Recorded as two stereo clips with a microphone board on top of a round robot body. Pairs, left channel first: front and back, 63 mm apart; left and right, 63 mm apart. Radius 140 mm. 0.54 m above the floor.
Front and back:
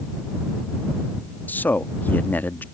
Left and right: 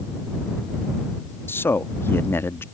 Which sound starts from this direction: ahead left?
A man speaking, at 1.5 s.